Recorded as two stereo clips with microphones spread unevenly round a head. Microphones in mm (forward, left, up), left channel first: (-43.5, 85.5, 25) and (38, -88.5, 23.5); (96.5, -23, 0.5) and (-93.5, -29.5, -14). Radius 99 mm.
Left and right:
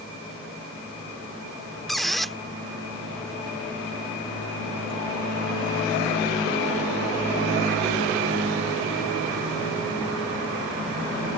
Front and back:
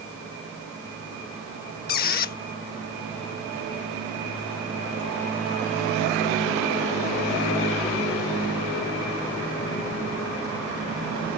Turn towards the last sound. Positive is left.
turn(degrees=25)